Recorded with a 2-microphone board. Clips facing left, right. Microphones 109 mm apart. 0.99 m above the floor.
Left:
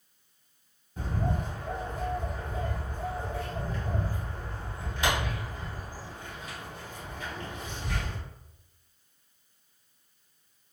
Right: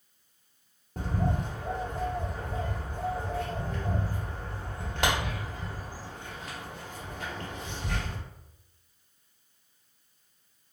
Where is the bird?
70° right (ahead or behind), 1.3 m.